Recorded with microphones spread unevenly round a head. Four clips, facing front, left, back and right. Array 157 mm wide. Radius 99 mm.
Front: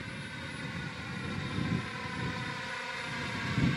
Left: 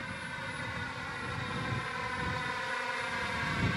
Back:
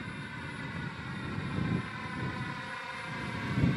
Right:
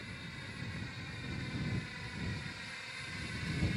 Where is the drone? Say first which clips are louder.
Left 8 dB, back 1 dB; 95° left; by 3.8 s 75° left.